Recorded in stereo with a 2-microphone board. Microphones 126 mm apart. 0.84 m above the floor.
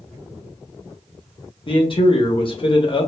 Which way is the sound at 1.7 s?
45° left (ahead or behind).